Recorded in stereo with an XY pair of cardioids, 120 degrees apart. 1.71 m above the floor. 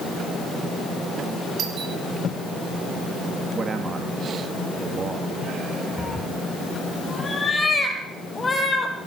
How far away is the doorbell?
About 6 m.